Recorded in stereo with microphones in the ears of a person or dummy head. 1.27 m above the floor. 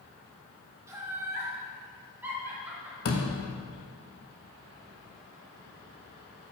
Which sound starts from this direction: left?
A door slam, at 3.0 s.